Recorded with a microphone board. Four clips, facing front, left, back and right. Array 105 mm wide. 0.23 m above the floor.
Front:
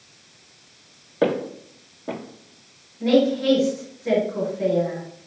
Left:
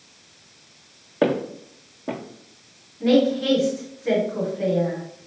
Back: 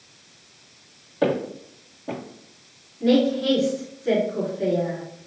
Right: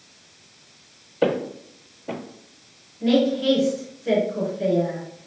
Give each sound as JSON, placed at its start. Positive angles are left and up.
{"t": 1.2, "sound": "footsteps", "azimuth_deg": 65, "distance_m": 1.5}
{"t": 3.0, "sound": "a woman speaking", "azimuth_deg": 50, "distance_m": 1.9}